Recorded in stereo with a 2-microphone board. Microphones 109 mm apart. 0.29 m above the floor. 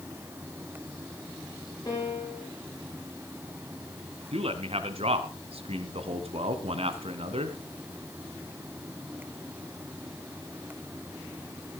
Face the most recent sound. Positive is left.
turn(degrees=-65)  # may be behind; listen again after turning